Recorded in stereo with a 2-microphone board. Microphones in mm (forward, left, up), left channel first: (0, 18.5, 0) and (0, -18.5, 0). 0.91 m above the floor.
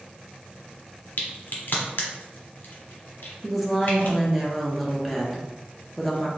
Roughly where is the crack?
Left.